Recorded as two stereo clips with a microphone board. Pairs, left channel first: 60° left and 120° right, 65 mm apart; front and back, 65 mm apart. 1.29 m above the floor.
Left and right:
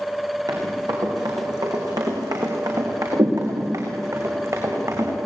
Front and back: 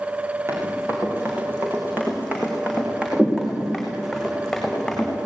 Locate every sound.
0.5 s running footsteps: 130° right, 7 m; by 5.1 s 80° right, 7.5 m